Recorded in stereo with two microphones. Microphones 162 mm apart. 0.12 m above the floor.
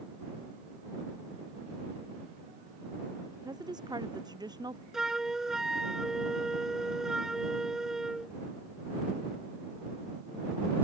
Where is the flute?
5° right (ahead or behind).